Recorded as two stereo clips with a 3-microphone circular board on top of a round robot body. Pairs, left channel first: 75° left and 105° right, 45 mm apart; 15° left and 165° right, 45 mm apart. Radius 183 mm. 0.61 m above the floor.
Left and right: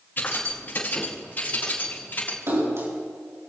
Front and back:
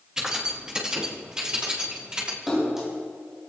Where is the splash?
80° right, 8 m.